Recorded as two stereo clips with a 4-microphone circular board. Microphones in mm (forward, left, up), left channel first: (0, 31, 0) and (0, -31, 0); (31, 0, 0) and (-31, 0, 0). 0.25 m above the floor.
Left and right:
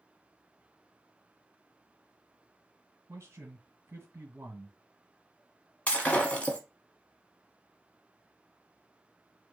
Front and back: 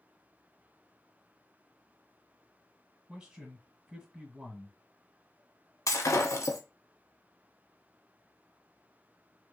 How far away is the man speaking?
About 1.5 m.